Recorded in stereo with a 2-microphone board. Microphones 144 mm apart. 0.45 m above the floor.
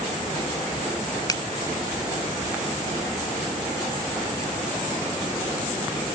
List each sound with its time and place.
1.3 s a finger snap: 25° left (ahead or behind)